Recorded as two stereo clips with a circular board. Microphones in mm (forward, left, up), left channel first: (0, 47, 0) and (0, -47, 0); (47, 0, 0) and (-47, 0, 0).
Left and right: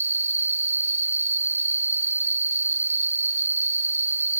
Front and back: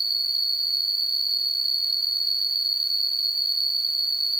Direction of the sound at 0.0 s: 25° right.